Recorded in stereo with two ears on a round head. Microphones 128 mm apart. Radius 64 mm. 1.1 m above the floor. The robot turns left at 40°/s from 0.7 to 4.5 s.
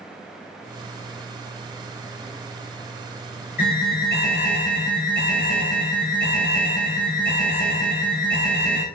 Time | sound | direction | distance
3.6 | an alarm | 110° left | 2.5 m